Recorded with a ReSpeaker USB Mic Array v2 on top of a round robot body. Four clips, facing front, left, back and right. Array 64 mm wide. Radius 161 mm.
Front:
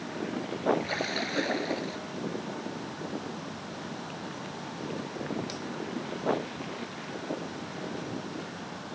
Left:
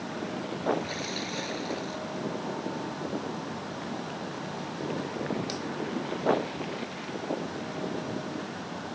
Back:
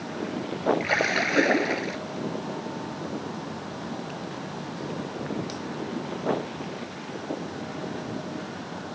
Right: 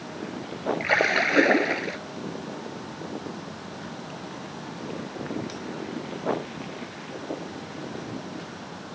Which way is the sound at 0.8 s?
115° right.